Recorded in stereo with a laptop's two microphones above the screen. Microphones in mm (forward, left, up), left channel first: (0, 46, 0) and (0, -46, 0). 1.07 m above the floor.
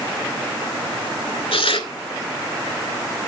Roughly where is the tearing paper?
Left.